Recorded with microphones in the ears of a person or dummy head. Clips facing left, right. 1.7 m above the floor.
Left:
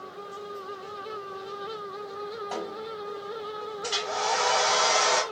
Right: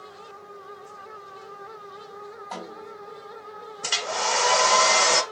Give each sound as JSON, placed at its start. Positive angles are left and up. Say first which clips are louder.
{"t": 2.5, "sound": "a snare drum", "louder": "left 1 dB", "side_deg": 15, "distance_m": 3.0}
{"t": 3.8, "sound": "a hair dryer", "louder": "right 2 dB", "side_deg": -60, "distance_m": 0.7}